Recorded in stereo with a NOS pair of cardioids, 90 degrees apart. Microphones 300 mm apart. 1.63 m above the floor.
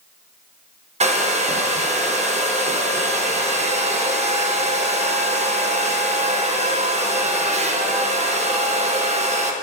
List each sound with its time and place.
1.0 s a hair dryer: 25° right, 1.4 m